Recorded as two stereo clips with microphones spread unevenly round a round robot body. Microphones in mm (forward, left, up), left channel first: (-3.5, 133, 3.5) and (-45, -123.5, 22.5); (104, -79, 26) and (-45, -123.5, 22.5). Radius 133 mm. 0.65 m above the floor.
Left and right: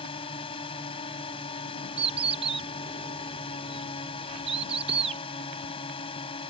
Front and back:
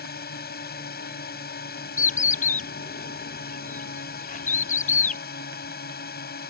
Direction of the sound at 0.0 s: 10° left.